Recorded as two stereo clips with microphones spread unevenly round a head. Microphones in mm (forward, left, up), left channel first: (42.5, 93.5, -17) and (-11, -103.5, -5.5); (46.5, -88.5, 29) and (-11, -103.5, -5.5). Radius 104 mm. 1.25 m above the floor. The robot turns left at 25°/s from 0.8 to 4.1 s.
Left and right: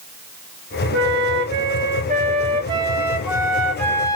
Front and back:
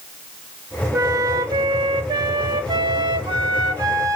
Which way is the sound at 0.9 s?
130° right.